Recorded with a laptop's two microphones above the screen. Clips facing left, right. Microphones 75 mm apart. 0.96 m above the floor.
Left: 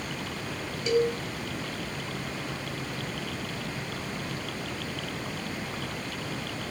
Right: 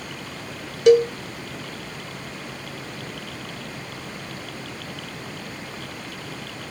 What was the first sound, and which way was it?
A cowbell, 70° right (ahead or behind).